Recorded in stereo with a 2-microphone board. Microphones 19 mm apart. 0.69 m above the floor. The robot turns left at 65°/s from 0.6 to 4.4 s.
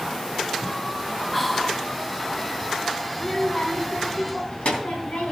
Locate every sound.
1.3 s whispering: 10° left (ahead or behind), 1.0 m; by 1.9 s 5° right (ahead or behind), 1.0 m
3.1 s a child speaking: 165° left, 3 m; by 5.3 s 80° left, 3 m